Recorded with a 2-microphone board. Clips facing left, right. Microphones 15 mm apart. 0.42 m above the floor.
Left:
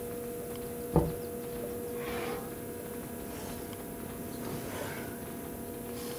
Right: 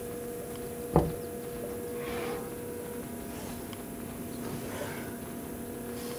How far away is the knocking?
About 0.5 m.